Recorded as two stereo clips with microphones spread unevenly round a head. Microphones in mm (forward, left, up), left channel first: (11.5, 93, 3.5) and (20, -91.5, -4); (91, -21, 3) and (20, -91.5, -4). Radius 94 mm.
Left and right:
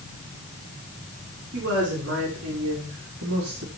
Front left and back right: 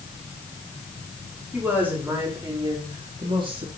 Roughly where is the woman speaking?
Ahead right.